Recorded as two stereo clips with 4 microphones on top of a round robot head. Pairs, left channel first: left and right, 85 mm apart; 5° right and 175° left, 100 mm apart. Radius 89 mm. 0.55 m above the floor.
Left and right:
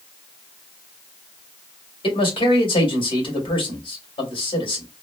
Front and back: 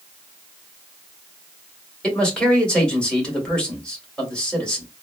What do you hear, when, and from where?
2.0 s a man speaking: 75° left, 2.5 m